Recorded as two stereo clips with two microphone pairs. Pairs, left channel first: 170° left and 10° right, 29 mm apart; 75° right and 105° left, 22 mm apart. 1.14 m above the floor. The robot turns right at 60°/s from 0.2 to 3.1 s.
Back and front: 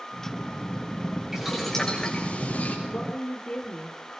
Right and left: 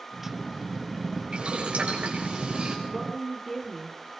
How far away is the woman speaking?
About 3.5 m.